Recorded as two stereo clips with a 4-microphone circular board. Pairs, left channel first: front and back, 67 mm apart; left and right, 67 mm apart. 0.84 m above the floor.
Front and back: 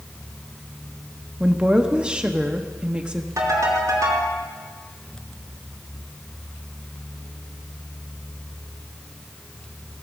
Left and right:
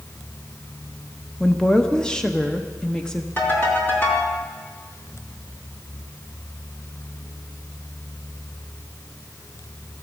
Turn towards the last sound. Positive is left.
turn(degrees=145)